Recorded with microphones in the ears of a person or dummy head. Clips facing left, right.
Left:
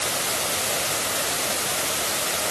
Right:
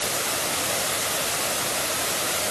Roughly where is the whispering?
No whispering in this recording.